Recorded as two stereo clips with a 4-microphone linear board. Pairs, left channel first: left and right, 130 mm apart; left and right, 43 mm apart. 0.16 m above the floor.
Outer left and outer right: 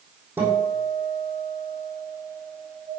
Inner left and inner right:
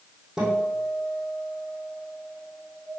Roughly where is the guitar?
Centre.